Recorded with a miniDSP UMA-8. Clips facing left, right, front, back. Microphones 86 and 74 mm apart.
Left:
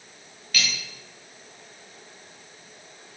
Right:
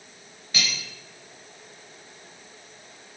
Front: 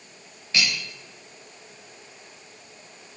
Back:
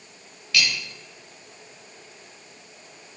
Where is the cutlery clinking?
40° right, 0.5 m.